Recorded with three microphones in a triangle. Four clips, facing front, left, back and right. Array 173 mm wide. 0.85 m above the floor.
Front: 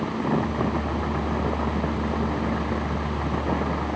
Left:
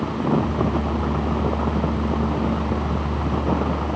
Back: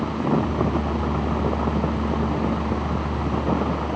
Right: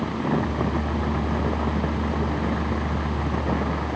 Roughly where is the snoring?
No snoring in this recording.